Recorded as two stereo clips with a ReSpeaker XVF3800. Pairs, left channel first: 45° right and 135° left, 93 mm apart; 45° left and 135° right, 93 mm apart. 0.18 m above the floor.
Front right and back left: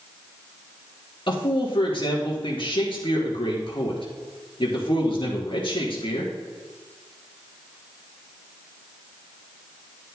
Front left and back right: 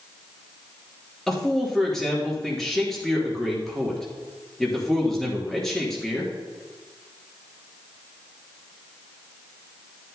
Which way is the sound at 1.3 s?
40° right.